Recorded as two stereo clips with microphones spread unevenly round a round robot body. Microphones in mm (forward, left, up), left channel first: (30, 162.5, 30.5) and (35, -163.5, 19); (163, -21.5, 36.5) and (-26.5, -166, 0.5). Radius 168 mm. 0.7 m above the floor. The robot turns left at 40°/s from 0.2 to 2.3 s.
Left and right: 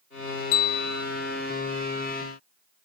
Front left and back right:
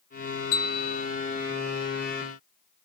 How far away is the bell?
About 1.3 m.